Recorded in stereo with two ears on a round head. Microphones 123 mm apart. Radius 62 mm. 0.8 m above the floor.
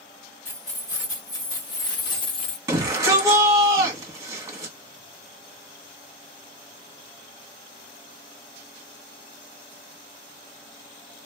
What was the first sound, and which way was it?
Keys jangling, 25° left (ahead or behind).